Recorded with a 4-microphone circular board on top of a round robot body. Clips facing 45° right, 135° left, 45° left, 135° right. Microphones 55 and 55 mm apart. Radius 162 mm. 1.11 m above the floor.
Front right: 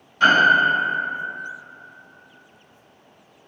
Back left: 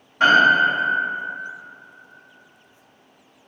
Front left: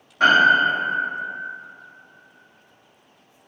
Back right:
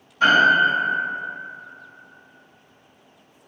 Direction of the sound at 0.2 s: 75° left.